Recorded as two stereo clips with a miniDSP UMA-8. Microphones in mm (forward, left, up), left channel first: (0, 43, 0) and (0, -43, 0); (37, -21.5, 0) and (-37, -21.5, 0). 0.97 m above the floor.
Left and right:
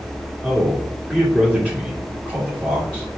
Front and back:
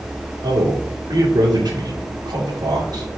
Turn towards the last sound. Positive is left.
turn(degrees=-165)